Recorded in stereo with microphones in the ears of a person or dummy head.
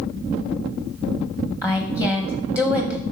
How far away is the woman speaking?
About 0.9 m.